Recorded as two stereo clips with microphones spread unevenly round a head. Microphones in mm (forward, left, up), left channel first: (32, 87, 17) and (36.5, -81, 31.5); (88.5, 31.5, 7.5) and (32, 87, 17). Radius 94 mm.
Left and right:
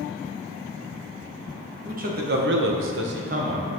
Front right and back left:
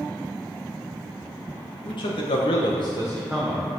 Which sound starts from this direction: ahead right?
A man speaking, at 1.9 s.